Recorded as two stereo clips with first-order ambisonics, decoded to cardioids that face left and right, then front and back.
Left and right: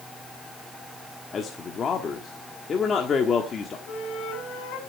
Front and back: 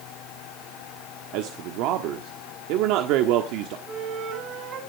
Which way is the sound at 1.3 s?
155° left.